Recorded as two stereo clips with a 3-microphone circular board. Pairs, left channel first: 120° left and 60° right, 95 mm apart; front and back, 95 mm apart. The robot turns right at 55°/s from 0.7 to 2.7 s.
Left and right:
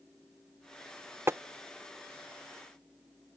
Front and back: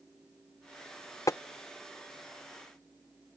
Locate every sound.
1.3 s tapping: 15° right; by 1.4 s 10° right